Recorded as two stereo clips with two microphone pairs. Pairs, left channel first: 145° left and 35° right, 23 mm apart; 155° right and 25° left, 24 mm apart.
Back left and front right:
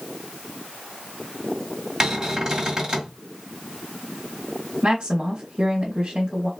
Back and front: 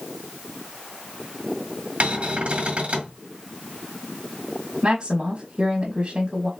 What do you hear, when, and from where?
2.0 s a cupboard door: 30° left, 1.9 m
4.8 s a woman speaking: straight ahead, 2.5 m